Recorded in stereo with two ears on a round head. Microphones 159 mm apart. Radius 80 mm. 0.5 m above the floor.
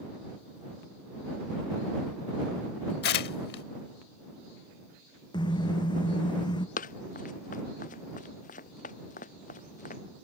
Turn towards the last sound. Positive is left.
turn(degrees=45)  # may be behind; listen again after turning